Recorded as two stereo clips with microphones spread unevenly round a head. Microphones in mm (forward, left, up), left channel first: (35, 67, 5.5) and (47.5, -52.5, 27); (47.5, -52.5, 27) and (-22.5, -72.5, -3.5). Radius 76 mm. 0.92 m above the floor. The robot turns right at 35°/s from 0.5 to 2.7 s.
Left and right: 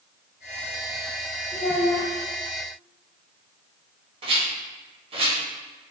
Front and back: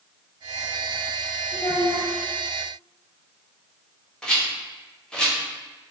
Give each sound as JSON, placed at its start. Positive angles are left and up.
{"t": 1.5, "sound": "a child speaking", "azimuth_deg": 70, "distance_m": 1.4}
{"t": 4.2, "sound": "a rattle", "azimuth_deg": -95, "distance_m": 1.0}